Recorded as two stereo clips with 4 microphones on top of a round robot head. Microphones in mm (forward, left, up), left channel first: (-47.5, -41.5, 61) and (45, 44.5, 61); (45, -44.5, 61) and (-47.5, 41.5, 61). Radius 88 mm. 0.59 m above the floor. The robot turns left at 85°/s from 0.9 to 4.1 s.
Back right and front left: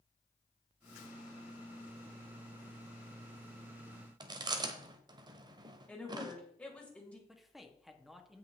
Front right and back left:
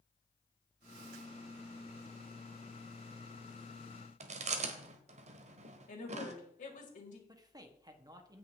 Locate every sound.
4.2 s chewing: 100° left, 1.0 m
5.9 s a woman speaking: 55° right, 3 m
7.3 s a man speaking: 130° left, 1.4 m